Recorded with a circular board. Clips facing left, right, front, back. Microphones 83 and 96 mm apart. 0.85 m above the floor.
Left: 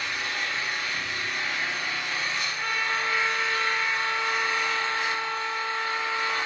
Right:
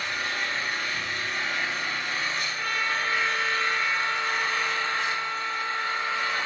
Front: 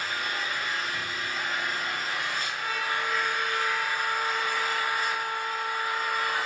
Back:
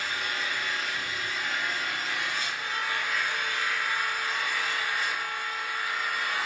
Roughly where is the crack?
No crack in this recording.